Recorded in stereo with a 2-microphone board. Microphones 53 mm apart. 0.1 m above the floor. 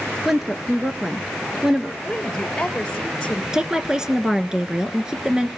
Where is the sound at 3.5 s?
10° right (ahead or behind), 1.1 m.